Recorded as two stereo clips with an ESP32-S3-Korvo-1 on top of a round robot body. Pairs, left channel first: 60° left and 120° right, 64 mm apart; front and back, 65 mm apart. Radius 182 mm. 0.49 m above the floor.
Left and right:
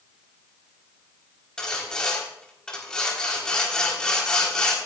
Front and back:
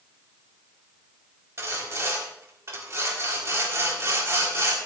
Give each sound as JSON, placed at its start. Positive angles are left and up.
{"t": 1.6, "sound": "sawing", "azimuth_deg": 135, "distance_m": 4.0}